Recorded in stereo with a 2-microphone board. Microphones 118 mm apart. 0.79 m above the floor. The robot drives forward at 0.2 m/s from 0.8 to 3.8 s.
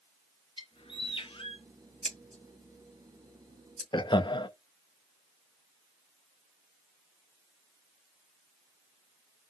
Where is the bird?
50° left (ahead or behind), 0.8 m; by 1.7 s 45° left (ahead or behind), 0.8 m.